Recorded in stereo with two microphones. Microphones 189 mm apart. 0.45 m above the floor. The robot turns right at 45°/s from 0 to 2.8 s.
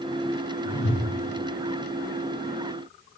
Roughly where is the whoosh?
Left.